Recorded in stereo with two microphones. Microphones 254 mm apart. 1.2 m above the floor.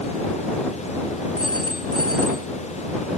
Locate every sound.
1.4 s a phone ringing: 65° right (ahead or behind)